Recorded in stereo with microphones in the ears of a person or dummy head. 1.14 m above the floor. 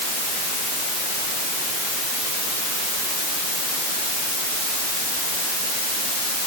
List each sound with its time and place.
Only background noise.